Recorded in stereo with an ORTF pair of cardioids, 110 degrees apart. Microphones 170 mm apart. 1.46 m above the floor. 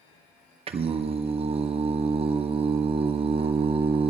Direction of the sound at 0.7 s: 35° right.